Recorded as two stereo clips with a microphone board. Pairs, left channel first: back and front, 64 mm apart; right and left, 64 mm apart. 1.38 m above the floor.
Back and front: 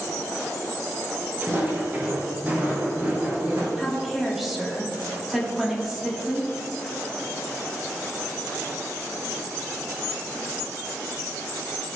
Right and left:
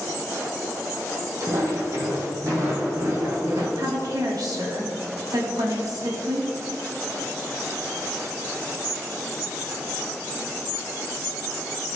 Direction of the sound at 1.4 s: 55° left.